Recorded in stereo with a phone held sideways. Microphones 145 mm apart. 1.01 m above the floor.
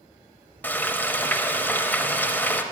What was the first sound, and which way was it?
Frying, 10° left (ahead or behind).